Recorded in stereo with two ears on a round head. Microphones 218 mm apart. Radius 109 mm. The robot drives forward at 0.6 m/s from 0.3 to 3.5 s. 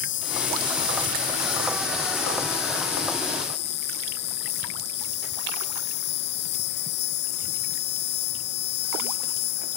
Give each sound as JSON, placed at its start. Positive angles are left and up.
{"t": 0.0, "sound": "an insect", "side_deg": 55}